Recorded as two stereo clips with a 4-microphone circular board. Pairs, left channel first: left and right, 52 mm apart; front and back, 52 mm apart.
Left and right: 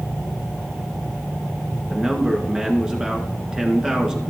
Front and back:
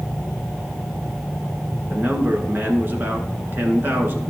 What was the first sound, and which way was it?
A man speaking, 160° right.